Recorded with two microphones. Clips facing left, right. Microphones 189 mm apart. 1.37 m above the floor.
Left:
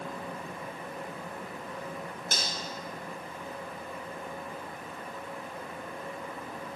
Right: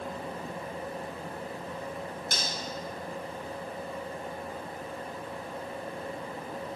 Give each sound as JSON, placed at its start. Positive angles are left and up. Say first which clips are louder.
{"t": 2.3, "sound": "cutlery clinking", "louder": "left 2 dB", "side_deg": 60, "distance_m": 3.0}